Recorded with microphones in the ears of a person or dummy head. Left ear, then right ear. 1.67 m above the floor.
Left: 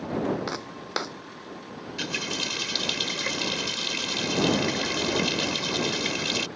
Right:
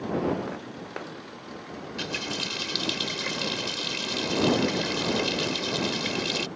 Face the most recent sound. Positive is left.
turn(degrees=15)  # may be behind; listen again after turning